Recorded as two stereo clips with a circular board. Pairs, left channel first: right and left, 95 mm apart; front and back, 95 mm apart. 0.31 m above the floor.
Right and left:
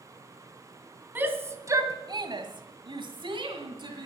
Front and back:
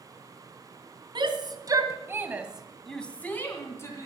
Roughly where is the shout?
Behind left.